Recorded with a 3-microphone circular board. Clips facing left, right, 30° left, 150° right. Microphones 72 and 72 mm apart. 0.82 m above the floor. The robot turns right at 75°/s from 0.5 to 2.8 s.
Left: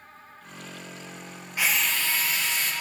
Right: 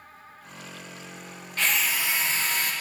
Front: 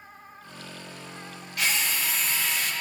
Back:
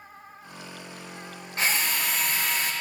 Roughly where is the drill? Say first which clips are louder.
Even, back 1 dB; behind.